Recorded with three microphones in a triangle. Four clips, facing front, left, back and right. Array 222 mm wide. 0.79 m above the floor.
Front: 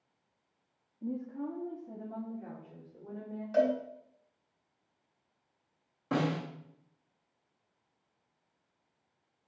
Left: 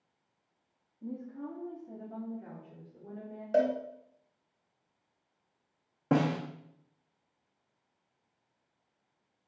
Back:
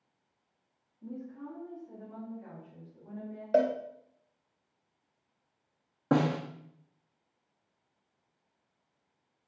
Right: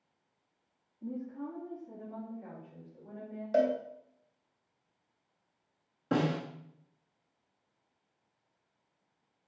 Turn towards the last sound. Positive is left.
turn(degrees=135)